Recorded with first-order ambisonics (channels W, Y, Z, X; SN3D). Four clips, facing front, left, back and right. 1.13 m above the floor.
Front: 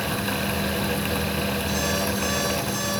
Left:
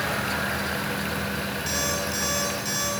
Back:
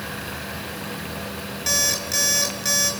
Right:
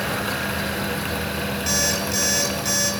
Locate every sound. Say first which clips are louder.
1.7 s an alarm clock: right 5 dB, back 2 dB; 160° right, 8 m